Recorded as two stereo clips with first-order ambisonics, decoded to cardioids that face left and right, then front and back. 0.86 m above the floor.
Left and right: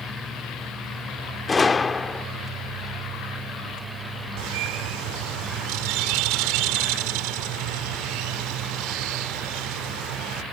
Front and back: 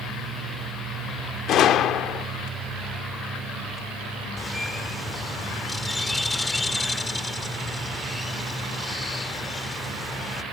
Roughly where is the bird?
Right.